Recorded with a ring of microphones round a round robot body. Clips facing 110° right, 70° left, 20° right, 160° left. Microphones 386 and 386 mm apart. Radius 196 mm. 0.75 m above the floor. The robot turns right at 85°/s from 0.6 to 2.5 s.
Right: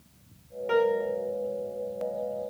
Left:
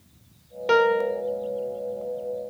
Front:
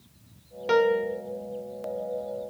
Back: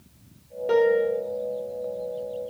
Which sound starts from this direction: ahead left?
A piano, at 0.7 s.